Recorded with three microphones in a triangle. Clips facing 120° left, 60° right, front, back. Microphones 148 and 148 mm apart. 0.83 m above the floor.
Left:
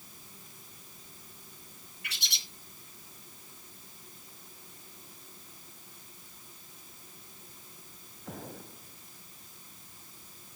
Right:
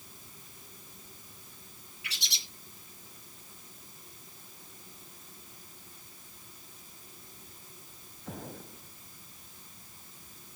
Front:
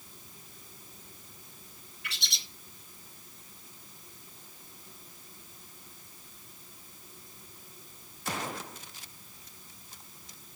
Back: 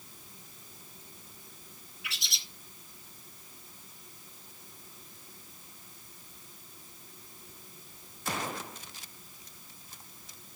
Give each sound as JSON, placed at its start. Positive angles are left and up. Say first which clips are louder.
{"t": 2.0, "sound": "a bird", "louder": "even, front 1 dB", "azimuth_deg": 90, "distance_m": 2.0}